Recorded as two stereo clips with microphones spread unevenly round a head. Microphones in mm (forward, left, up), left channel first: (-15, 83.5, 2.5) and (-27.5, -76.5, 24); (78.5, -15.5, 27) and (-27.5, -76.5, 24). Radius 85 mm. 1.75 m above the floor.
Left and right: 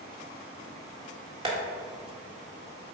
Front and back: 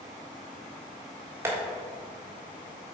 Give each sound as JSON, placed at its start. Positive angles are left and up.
{"t": 1.4, "sound": "tapping", "azimuth_deg": -90, "distance_m": 1.5}